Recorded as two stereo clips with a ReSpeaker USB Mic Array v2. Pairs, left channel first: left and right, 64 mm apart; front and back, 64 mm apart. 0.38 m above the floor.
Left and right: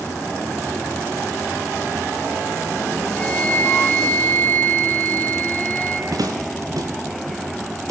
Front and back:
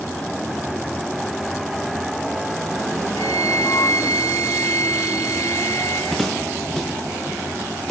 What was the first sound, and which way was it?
A flute, 25° left.